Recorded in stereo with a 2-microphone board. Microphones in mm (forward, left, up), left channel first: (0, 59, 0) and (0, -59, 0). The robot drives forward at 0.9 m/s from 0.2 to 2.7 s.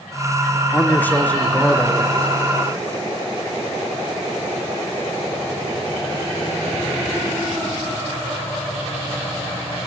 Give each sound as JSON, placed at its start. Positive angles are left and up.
{"t": 0.7, "sound": "a man speaking", "side_deg": 20, "distance_m": 0.9}